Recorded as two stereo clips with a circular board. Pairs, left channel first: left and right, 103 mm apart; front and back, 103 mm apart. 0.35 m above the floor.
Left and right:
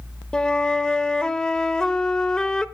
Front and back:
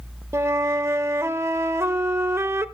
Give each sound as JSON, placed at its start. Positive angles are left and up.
{"t": 0.3, "sound": "a flute", "azimuth_deg": 160, "distance_m": 0.6}